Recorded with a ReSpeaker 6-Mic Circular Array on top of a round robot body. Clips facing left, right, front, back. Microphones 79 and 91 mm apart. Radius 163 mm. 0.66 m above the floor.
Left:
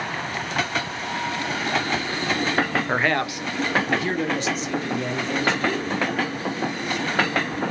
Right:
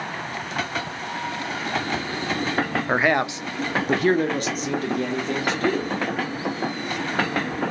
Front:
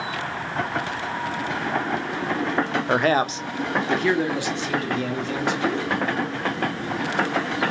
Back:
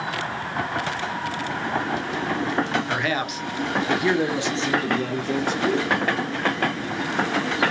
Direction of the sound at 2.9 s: 5° right.